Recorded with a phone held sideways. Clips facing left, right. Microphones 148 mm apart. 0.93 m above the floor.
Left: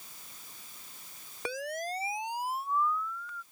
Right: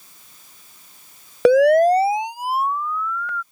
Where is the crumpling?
No crumpling in this recording.